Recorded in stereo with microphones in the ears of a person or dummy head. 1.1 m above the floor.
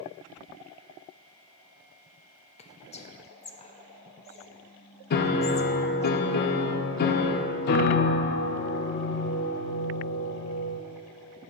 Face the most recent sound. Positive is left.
turn(degrees=60)  # may be behind; listen again after turning